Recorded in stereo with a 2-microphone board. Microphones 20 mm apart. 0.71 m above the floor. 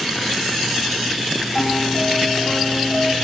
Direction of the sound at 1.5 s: 40° left (ahead or behind).